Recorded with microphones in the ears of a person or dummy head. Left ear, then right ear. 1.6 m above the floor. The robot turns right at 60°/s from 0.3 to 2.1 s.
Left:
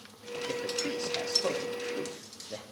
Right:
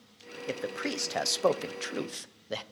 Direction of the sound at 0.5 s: 30° right (ahead or behind).